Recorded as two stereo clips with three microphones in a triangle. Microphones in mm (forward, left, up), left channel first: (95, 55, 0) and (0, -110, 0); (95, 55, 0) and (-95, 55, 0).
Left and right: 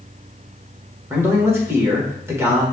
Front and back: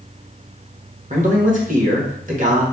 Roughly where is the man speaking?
Behind.